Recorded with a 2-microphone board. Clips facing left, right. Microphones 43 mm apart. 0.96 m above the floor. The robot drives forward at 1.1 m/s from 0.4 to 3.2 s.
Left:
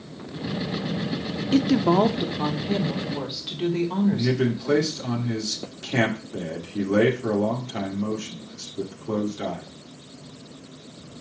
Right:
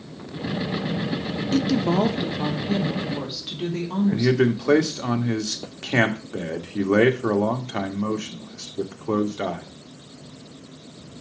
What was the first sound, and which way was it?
A woman speaking, 30° left (ahead or behind).